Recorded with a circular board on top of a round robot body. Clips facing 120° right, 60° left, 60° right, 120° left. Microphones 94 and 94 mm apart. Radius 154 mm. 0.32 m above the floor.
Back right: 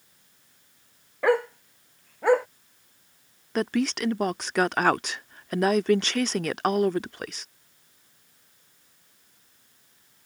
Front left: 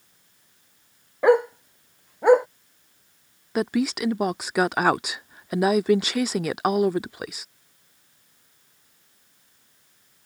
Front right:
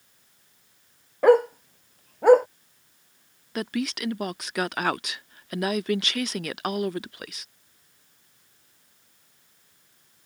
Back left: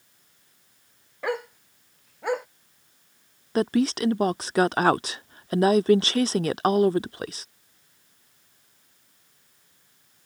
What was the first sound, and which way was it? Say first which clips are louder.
A dog barking: front left 5 dB, front right 13 dB; 10° right.